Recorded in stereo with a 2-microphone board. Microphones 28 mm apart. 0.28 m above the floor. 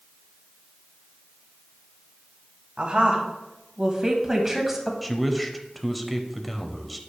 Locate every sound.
2.8 s a woman speaking: 40° right (ahead or behind), 2 m; by 4.9 s 5° right (ahead or behind), 1.9 m
5.0 s a man speaking: 5° left (ahead or behind), 0.9 m